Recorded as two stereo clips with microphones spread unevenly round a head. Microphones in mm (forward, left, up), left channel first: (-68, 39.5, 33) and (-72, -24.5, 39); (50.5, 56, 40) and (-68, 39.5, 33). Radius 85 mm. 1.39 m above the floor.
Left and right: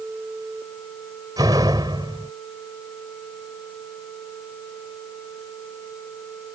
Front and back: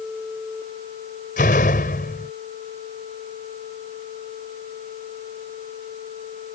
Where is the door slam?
30° right.